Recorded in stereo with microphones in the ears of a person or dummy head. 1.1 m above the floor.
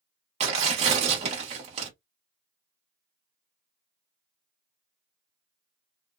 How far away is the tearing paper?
About 0.9 m.